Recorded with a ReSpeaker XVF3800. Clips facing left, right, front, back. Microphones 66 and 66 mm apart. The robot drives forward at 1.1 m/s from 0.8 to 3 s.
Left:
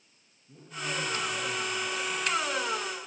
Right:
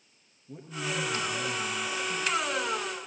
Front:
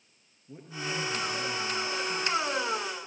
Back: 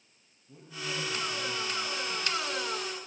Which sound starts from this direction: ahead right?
A man speaking, at 0.5 s.